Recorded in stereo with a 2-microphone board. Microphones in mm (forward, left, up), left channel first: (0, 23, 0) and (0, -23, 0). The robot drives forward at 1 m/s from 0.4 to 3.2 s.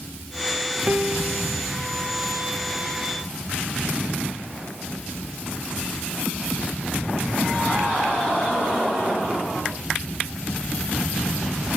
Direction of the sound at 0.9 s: 50° right (ahead or behind).